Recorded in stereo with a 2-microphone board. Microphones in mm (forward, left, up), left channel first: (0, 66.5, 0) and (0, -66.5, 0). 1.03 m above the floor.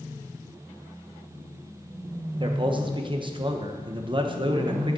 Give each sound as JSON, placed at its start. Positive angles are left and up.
{"t": 2.4, "sound": "a man speaking", "side_deg": -40, "distance_m": 1.0}